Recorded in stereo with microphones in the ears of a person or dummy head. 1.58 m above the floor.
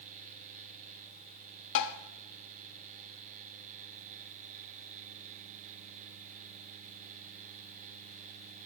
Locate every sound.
1.8 s tapping: 65° left (ahead or behind), 0.6 m